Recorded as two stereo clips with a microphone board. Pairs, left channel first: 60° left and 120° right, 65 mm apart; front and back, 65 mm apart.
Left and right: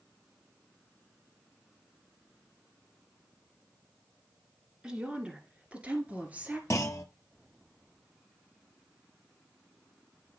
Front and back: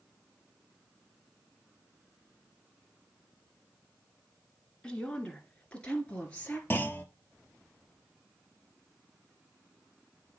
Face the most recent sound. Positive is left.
turn(degrees=45)